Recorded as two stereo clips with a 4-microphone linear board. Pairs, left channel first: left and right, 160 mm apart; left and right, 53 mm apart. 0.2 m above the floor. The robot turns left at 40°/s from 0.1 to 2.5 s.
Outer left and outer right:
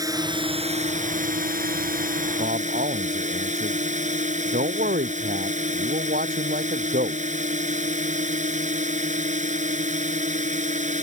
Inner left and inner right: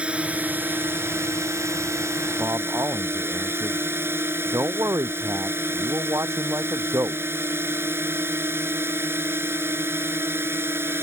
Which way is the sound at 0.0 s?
25° right.